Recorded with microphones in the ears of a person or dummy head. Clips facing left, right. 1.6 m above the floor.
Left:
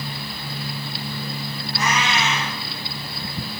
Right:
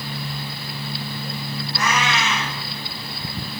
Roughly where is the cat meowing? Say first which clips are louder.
Even; right.